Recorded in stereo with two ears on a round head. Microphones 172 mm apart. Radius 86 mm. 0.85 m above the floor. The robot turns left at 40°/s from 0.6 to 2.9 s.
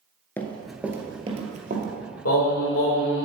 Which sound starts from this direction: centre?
Running footsteps, at 0.4 s.